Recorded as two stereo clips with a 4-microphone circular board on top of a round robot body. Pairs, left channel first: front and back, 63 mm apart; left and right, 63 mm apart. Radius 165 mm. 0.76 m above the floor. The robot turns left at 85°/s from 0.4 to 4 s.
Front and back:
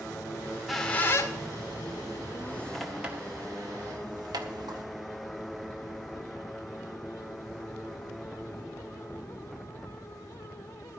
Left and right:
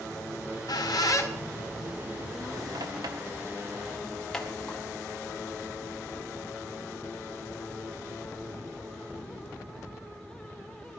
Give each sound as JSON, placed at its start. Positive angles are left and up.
{"t": 0.4, "sound": "a squeak", "azimuth_deg": 120, "distance_m": 1.7}